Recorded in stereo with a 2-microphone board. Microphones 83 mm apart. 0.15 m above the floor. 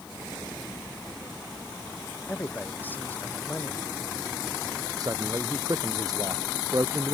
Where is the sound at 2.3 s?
20° left (ahead or behind).